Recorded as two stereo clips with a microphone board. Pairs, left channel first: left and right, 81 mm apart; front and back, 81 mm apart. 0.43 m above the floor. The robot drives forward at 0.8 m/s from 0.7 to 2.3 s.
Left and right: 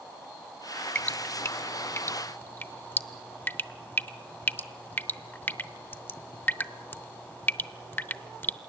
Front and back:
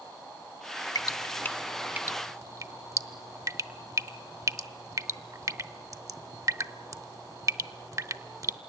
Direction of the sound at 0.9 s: 25° left.